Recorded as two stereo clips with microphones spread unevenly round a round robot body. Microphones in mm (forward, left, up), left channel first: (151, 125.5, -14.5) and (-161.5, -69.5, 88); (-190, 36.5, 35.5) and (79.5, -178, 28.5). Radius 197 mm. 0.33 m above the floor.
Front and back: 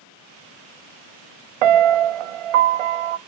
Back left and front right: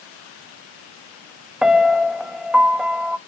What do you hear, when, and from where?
1.6 s a piano: 125° right, 0.5 m